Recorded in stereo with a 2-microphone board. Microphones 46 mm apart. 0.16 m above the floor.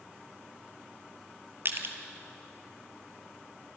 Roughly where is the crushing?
Right.